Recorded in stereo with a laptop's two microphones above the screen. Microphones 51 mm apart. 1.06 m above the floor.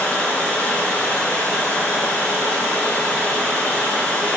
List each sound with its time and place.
0.0 s running water: 20° left (ahead or behind), 3.5 m